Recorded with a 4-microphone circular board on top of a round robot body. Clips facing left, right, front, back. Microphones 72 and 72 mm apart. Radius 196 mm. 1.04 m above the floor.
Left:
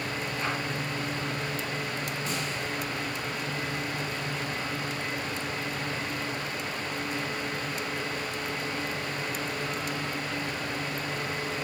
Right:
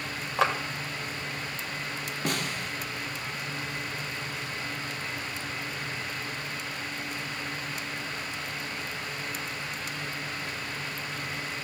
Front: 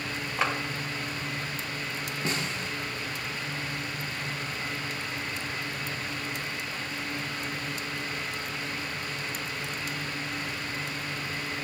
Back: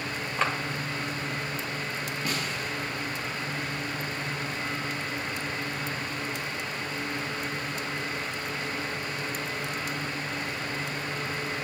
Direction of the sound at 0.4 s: 85° right.